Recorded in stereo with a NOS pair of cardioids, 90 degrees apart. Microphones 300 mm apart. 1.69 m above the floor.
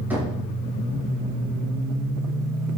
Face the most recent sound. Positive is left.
turn(degrees=-5)